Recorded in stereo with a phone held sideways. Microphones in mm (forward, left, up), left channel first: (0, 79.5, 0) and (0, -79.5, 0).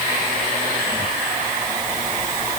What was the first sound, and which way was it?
Only background noise.